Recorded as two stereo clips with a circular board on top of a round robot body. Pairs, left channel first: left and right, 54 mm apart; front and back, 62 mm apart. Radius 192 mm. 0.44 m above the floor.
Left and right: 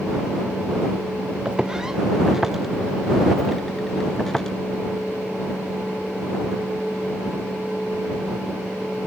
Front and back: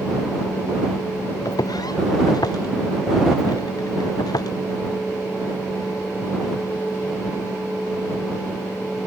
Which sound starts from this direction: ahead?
Footsteps, at 1.4 s.